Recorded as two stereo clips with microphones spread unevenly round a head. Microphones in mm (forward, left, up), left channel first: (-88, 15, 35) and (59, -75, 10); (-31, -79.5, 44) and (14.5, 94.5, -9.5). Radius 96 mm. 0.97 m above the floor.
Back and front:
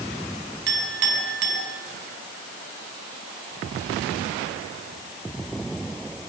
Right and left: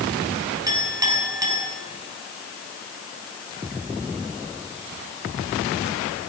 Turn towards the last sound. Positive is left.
turn(degrees=5)